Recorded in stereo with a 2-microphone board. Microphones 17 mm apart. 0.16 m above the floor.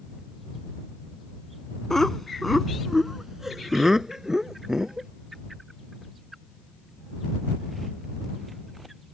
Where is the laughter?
25° left (ahead or behind); by 5.1 s 30° right (ahead or behind).